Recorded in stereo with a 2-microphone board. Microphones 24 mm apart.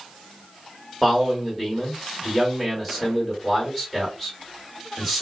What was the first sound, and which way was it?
A man speaking, 10° left (ahead or behind).